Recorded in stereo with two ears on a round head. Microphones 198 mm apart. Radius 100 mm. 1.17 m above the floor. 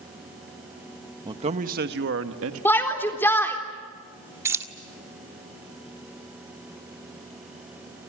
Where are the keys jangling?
10° right (ahead or behind), 1.6 m.